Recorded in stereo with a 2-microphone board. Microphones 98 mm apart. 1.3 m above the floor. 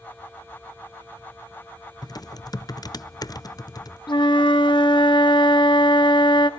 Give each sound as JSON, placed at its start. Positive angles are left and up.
{"t": 2.0, "sound": "typing on a keyboard", "side_deg": 40, "distance_m": 0.5}
{"t": 4.1, "sound": "a flute", "side_deg": 50, "distance_m": 1.1}